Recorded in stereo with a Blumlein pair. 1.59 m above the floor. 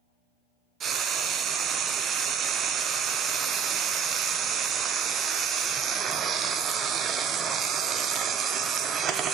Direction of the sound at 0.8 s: 25° right.